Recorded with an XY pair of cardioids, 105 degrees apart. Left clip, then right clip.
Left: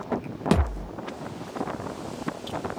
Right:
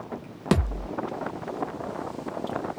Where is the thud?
Straight ahead, 0.9 m.